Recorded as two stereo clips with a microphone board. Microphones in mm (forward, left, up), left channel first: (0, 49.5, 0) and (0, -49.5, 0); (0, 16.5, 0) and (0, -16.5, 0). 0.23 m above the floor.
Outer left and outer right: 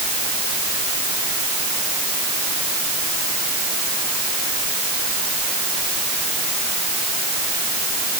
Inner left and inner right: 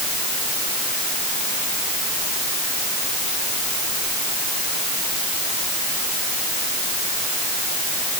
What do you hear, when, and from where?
Only background noise.